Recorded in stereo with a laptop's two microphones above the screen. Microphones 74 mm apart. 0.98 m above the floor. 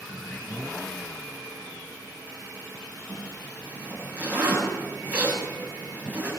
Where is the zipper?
20° right (ahead or behind), 9 m.